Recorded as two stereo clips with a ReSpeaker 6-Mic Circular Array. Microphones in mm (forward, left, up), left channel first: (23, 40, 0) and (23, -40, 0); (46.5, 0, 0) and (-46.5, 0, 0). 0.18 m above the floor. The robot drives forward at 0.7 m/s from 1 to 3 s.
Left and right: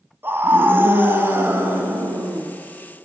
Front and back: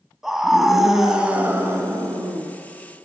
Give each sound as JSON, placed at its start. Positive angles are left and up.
{"t": 0.2, "sound": "a scream", "azimuth_deg": -100, "distance_m": 1.2}